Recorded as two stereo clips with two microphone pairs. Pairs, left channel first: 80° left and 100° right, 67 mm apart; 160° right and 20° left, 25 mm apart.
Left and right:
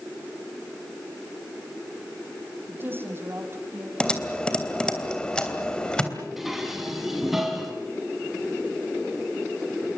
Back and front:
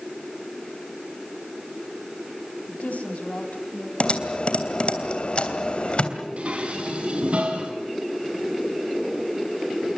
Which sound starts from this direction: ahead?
Dishes clattering, at 6.4 s.